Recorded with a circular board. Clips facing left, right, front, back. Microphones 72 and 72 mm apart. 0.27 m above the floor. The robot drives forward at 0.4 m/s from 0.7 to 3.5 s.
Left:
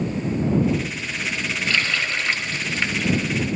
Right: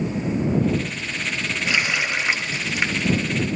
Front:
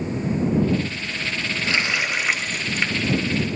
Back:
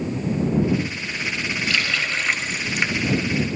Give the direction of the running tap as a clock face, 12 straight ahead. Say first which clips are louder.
Right 1 dB, front 2 dB; 1 o'clock.